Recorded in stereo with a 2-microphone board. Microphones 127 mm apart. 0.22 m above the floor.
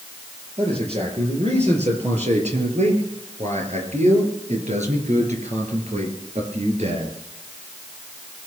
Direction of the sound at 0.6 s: 55° right (ahead or behind).